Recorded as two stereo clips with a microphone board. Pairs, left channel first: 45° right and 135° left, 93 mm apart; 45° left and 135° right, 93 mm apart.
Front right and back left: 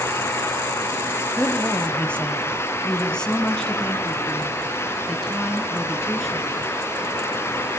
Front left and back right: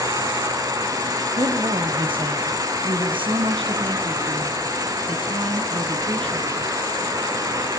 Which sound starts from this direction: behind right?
A woman speaking, at 1.4 s.